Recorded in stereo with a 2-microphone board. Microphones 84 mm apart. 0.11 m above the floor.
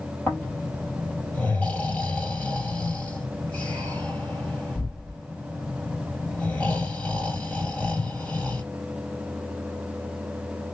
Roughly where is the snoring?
Centre.